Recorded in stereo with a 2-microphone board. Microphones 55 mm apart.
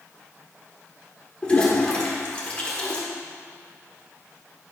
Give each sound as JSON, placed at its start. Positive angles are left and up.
{"t": 1.4, "sound": "a toilet flushing", "side_deg": 25, "distance_m": 1.5}